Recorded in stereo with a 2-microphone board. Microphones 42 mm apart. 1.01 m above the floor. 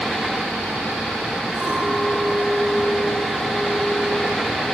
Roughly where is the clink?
Centre.